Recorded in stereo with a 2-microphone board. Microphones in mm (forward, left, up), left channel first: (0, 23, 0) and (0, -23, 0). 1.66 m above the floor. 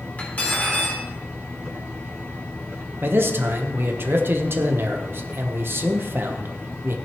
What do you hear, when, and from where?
0.2 s cutlery clinking: 35° left (ahead or behind), 3 m
3.0 s a man speaking: 50° right (ahead or behind), 1.0 m